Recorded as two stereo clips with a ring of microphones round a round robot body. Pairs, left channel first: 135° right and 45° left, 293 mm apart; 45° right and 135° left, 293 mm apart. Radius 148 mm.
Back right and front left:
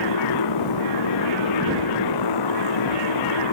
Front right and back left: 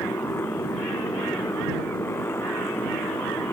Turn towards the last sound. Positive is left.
turn(degrees=-125)